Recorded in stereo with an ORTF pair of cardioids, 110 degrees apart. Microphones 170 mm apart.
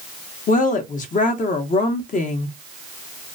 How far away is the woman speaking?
About 0.8 m.